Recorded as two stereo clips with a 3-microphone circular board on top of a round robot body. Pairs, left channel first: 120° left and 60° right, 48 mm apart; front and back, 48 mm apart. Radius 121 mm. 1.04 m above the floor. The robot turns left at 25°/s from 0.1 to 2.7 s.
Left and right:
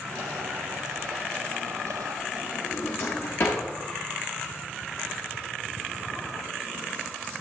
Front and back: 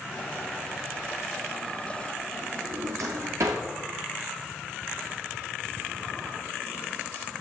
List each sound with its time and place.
2.6 s a drawer: 155° left, 0.6 m